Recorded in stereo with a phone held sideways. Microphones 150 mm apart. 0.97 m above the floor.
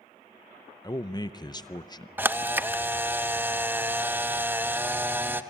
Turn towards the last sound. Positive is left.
turn(degrees=-10)  # may be behind; listen again after turning